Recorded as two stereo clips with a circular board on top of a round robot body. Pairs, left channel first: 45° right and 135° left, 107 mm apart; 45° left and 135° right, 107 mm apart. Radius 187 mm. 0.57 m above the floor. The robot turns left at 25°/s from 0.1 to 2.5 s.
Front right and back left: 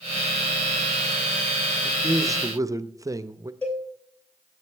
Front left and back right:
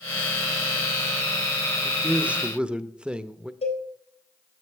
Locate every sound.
1.8 s a man speaking: 170° left, 0.7 m; by 3.5 s 155° left, 0.7 m
3.6 s a cowbell: 30° left, 3 m